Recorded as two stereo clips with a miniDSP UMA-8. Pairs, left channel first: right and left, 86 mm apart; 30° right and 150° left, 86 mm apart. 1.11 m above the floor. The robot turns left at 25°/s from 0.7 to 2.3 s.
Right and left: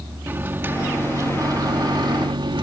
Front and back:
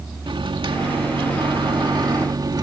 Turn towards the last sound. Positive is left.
turn(degrees=115)